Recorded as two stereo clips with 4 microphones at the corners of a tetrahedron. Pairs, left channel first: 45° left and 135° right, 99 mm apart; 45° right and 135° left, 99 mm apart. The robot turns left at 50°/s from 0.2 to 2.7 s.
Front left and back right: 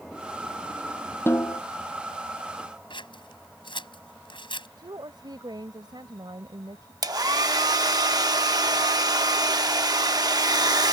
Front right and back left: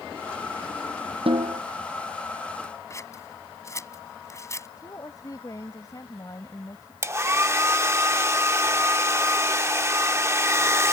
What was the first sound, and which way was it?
A snare drum, 110° left.